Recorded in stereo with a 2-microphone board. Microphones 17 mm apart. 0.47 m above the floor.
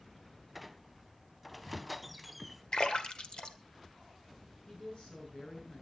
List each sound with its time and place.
0.6 s a squeak: 5° left (ahead or behind), 0.5 m
2.7 s a splash: 55° left (ahead or behind), 1.4 m
4.7 s a woman speaking: 60° left (ahead or behind), 7 m